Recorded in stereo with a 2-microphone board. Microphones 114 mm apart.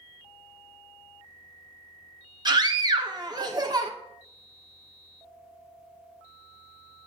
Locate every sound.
2.5 s a scream: 35° right (ahead or behind), 1.1 m